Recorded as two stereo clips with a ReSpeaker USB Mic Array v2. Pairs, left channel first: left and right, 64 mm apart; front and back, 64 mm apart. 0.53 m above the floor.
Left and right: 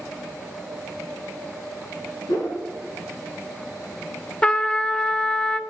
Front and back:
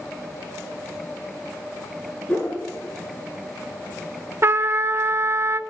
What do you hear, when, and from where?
2.3 s a whoosh: 65° left, 6 m
4.4 s a trumpet: 155° left, 0.5 m